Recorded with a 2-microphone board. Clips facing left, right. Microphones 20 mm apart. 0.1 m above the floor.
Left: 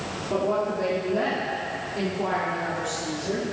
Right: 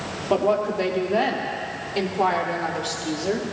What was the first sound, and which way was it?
A woman speaking, 55° right (ahead or behind).